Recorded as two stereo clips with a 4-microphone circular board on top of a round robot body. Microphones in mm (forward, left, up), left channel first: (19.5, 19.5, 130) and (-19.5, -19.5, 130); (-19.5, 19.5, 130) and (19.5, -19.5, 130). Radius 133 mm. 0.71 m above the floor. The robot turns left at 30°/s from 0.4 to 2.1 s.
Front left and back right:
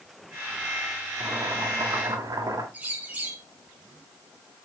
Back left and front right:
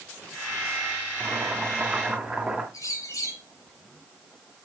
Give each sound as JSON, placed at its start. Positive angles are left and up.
{"t": 1.2, "sound": "boiling", "azimuth_deg": -100, "distance_m": 2.0}
{"t": 2.7, "sound": "a bird", "azimuth_deg": 160, "distance_m": 1.7}